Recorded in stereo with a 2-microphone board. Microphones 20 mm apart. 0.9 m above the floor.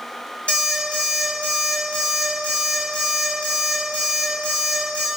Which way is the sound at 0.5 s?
65° left (ahead or behind).